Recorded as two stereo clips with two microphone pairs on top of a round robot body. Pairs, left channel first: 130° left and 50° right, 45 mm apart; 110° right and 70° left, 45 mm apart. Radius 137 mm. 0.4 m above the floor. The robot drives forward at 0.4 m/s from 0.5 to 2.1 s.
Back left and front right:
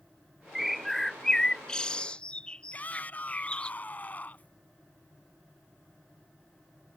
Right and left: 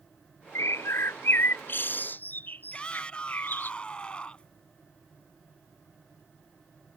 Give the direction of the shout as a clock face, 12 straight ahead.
6 o'clock.